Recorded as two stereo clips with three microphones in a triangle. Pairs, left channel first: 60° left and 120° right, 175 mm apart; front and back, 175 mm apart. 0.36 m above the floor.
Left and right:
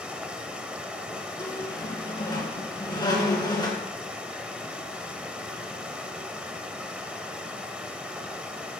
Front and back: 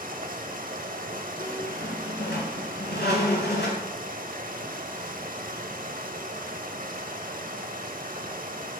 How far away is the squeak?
About 2.0 m.